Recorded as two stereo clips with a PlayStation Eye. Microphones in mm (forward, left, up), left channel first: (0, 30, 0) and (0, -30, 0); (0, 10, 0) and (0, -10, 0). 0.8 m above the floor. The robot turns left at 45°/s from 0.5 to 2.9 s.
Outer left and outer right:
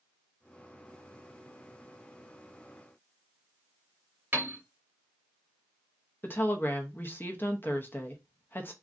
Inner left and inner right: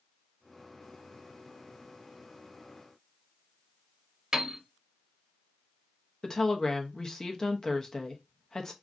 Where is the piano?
30° right (ahead or behind), 0.8 m.